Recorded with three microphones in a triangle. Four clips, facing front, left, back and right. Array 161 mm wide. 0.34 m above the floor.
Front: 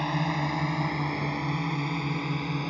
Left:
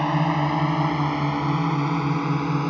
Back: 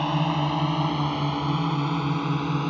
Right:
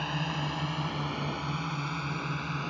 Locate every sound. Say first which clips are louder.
0.0 s a drone: left 12 dB, back 4 dB; 105° left; by 2.7 s 110° left